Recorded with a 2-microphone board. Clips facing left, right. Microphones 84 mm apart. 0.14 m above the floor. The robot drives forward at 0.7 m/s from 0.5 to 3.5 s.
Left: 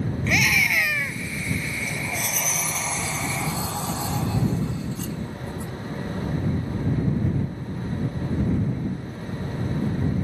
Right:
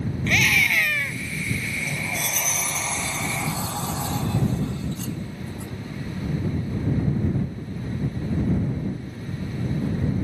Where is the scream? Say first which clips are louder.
Right 1 dB; 10° left (ahead or behind).